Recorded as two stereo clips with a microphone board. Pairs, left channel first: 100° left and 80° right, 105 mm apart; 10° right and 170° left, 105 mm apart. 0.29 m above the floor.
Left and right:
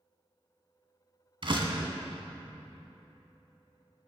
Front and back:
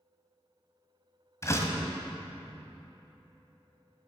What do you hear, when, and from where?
1.4 s a door slam: 70° right, 1.7 m